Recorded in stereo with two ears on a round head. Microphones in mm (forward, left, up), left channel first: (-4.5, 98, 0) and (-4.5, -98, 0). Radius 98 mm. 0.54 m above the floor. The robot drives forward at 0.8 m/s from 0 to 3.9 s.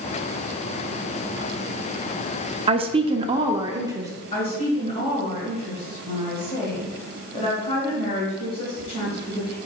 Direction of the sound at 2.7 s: 25° right (ahead or behind).